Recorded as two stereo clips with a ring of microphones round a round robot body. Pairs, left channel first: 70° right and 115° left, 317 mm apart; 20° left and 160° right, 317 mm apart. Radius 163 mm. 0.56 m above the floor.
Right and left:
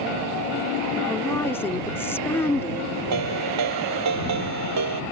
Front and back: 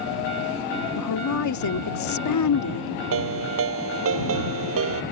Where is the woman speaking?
15° left.